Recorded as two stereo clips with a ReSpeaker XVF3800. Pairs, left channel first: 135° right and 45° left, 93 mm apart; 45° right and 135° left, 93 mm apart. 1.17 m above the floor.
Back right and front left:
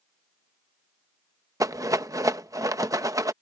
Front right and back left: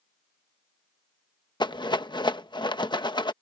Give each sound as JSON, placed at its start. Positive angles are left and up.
{"t": 1.6, "sound": "a rattle", "azimuth_deg": -10}